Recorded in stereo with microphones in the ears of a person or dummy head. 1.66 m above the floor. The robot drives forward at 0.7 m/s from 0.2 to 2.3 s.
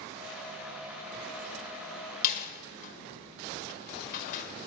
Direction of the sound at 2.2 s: 45° left (ahead or behind).